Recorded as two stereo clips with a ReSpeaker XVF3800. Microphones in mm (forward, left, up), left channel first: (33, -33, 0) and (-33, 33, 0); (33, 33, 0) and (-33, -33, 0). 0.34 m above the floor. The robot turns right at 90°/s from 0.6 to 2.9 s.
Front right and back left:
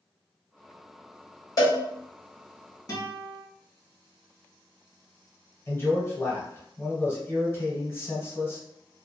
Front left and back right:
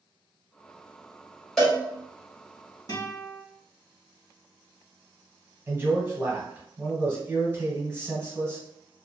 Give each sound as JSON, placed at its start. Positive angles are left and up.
{"t": 1.6, "sound": "a cowbell", "azimuth_deg": -40, "distance_m": 1.6}
{"t": 2.9, "sound": "a guitar", "azimuth_deg": 0, "distance_m": 0.9}
{"t": 5.7, "sound": "a man speaking", "azimuth_deg": -85, "distance_m": 1.2}